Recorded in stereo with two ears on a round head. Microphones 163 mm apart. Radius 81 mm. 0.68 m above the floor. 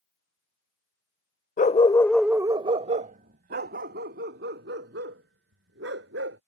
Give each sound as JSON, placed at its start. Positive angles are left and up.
{"t": 1.6, "sound": "a dog barking", "side_deg": 45}